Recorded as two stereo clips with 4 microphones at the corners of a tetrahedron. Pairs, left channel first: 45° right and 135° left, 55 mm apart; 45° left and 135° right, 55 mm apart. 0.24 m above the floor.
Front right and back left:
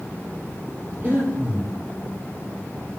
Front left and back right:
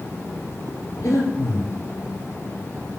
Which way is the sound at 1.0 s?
70° left.